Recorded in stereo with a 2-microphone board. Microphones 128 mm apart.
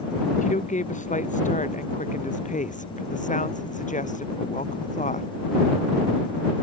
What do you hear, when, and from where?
0.4 s a woman speaking: 75° left (ahead or behind)